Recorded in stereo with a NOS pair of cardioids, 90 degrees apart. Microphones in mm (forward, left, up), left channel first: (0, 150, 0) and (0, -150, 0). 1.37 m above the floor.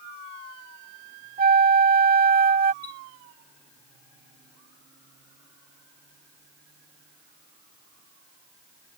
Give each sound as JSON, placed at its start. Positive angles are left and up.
{"t": 1.4, "sound": "a flute", "azimuth_deg": -30}
{"t": 2.8, "sound": "a chime", "azimuth_deg": 45}